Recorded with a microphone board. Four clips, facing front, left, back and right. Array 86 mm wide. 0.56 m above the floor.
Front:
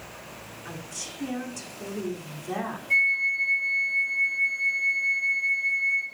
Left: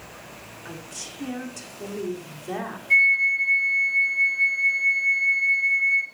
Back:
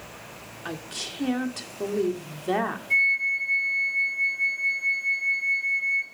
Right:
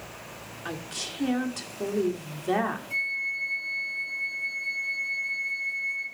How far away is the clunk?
No clunk in this recording.